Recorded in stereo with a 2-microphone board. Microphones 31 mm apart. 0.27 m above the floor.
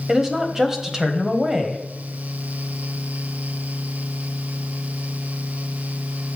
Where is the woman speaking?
20° right (ahead or behind), 1.4 m.